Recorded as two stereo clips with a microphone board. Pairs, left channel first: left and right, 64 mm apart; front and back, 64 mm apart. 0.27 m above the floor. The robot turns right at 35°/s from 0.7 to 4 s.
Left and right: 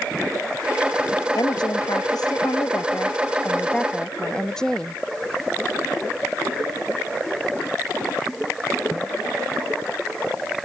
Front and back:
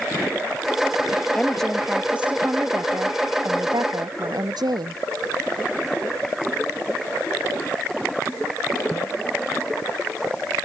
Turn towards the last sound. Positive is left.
turn(degrees=170)